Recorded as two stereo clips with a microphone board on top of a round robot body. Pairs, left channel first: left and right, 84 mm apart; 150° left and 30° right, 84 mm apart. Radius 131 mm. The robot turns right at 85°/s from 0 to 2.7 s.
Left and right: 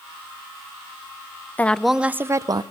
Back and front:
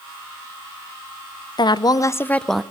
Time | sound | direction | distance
1.6 | a woman speaking | 155° left | 0.6 m